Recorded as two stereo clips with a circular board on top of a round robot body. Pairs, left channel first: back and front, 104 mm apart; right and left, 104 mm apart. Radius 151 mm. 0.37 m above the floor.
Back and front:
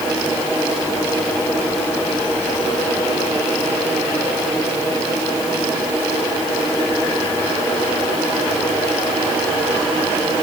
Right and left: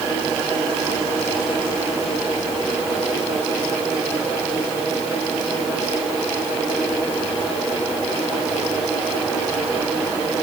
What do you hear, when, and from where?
Only background noise.